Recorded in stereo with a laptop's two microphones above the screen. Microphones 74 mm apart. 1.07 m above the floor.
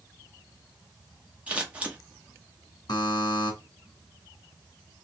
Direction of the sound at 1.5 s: 15° right (ahead or behind).